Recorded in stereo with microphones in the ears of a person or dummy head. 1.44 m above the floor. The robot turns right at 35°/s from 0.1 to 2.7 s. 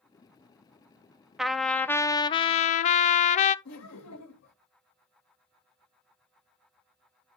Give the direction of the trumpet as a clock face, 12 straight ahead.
12 o'clock.